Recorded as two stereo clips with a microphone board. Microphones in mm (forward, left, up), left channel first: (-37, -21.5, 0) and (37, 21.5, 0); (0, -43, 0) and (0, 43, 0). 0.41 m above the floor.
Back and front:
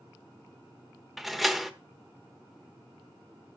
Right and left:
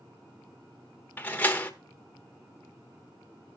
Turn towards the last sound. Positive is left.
turn(degrees=-55)